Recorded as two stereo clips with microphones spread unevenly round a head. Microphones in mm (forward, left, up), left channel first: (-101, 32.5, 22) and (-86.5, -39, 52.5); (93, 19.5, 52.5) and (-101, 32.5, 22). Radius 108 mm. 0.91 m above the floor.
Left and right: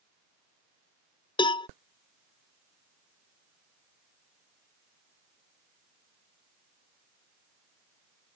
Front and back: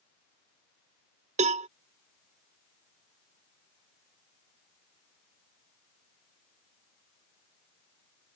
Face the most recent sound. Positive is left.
turn(degrees=120)